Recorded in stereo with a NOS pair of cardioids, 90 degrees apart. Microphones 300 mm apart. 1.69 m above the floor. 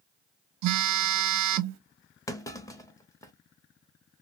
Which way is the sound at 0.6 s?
70° right.